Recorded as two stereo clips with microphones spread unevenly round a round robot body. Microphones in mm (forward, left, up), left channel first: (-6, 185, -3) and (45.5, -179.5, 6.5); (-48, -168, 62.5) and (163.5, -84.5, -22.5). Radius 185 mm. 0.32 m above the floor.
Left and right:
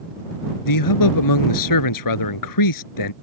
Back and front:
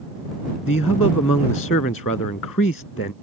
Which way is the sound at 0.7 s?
140° left.